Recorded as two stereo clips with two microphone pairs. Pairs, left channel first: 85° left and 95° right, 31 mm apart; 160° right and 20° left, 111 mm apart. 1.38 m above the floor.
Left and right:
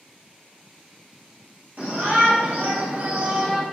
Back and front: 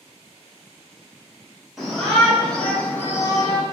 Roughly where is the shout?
Ahead right.